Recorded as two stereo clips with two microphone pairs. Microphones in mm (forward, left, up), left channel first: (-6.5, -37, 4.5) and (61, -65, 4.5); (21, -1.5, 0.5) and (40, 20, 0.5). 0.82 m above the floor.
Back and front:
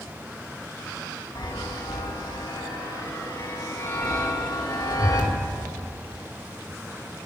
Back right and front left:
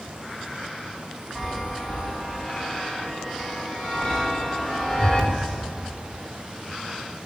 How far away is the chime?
About 2.5 m.